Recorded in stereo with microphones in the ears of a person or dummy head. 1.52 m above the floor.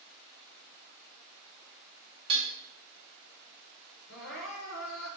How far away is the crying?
About 1.2 m.